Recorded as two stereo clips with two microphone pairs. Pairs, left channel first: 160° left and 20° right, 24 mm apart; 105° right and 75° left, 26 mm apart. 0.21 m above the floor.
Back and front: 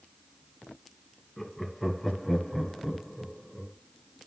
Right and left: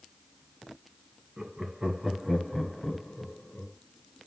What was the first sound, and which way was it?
Laughter, 80° left.